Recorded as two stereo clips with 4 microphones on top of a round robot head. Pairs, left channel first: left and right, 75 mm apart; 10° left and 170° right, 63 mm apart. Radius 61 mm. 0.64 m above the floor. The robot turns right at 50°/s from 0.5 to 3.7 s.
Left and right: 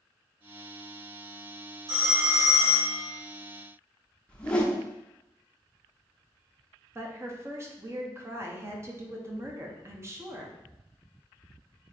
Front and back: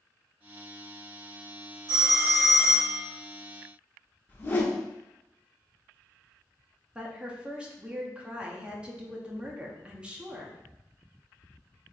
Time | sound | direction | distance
1.9 | a phone ringing | 145° right | 1.3 m
4.3 | a whoosh | 25° left | 0.8 m
7.0 | a woman speaking | 105° right | 0.7 m